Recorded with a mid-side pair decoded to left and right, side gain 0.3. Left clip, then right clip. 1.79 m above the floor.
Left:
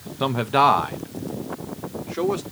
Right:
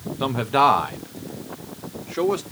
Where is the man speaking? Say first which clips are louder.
Even; 25° left, 1.0 m; by 2.4 s 15° right, 1.8 m.